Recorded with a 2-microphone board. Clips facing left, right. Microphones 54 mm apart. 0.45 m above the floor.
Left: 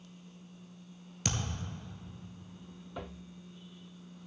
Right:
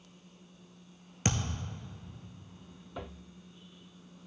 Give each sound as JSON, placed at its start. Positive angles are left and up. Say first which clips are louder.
{"t": 1.2, "sound": "a thud", "louder": "right 3 dB", "side_deg": -35, "distance_m": 1.1}